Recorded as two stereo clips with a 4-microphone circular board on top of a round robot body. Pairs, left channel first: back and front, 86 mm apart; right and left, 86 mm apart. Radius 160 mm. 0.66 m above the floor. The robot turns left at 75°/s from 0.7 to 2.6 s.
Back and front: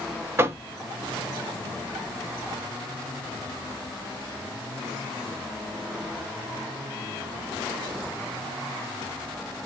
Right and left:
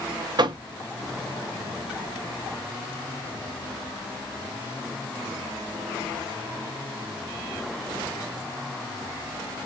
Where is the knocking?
60° left, 0.7 m.